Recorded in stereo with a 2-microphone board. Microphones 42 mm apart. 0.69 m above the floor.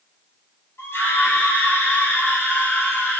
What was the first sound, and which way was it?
A scream, 80° left.